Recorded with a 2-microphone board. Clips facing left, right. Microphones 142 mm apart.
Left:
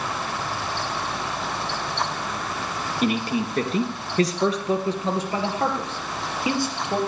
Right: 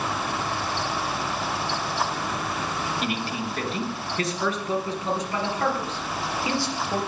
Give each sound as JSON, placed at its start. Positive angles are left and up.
{"t": 3.0, "sound": "a man speaking", "side_deg": 45, "distance_m": 2.5}